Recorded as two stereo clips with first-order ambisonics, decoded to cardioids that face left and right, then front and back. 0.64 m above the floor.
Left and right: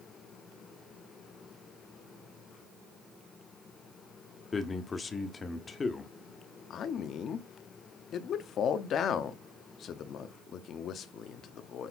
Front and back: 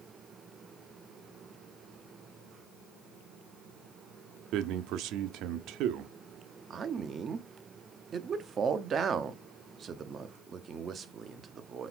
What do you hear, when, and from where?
4.5 s a man speaking: 160° left, 0.8 m
6.7 s a man speaking: 125° left, 0.8 m